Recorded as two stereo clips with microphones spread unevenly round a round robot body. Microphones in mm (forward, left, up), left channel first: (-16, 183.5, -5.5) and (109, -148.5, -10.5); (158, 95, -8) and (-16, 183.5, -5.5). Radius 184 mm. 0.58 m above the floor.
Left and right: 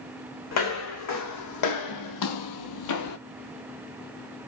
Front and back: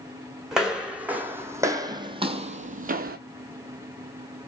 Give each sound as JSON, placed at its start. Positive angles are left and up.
{"t": 0.5, "sound": "footsteps", "azimuth_deg": 65, "distance_m": 1.8}